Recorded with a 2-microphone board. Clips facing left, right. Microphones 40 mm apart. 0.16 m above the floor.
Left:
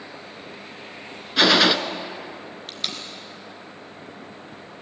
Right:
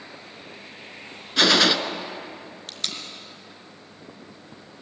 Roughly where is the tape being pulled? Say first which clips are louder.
Left 1 dB; centre.